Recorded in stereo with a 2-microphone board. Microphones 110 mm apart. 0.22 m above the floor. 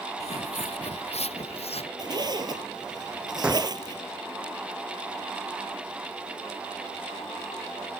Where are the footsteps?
80° left; by 1.9 s 65° left (ahead or behind).